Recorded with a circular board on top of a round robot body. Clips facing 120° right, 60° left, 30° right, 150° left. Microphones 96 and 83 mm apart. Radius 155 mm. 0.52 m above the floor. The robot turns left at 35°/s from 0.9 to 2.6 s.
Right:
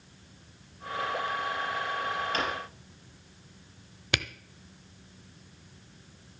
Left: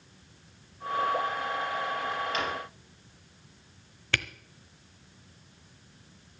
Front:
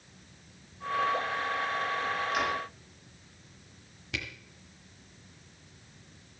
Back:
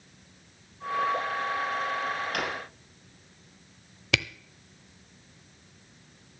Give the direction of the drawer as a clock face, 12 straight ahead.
6 o'clock.